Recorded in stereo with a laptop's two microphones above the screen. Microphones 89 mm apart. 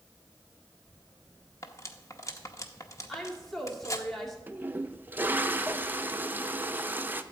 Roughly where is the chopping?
I don't hear chopping.